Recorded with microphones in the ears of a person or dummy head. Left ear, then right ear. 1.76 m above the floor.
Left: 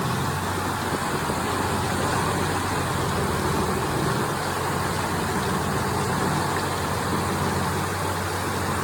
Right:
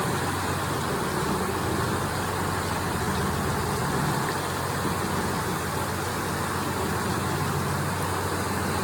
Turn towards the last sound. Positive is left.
No sound to turn to.